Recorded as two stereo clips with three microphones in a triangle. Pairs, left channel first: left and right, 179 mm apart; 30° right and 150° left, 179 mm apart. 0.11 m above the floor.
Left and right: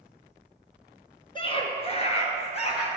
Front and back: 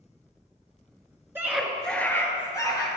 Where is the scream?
90° left, 1.2 m; by 2.9 s 35° left, 2.5 m.